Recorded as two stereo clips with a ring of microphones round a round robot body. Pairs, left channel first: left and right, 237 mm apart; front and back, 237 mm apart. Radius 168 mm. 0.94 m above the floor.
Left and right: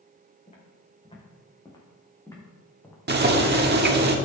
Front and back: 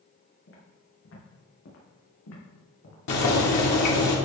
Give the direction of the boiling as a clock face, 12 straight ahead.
1 o'clock.